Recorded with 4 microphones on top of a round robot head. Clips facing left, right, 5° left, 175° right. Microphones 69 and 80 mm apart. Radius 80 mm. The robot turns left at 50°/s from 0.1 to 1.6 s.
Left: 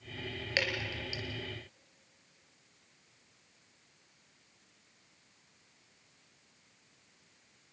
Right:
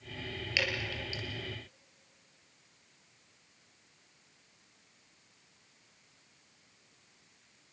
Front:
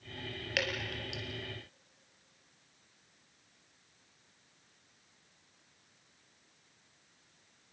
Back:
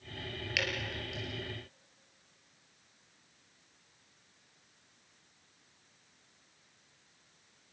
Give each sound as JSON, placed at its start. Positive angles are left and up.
{"t": 0.6, "sound": "dripping", "azimuth_deg": 50, "distance_m": 3.5}